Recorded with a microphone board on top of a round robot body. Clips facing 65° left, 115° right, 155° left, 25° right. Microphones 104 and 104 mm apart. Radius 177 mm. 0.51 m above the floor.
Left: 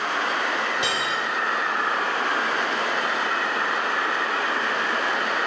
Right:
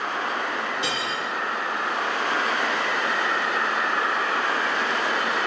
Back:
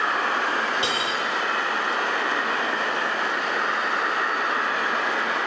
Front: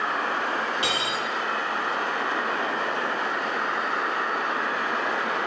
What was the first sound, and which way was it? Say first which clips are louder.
Cutlery clinking: left 2 dB, back 2 dB; 90° left.